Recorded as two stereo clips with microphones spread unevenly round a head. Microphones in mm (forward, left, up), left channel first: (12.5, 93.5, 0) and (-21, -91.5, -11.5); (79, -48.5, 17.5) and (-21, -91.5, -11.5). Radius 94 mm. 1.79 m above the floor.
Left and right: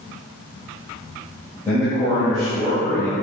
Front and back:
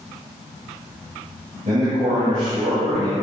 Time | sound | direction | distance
1.6 | a man speaking | 155° left | 1.8 m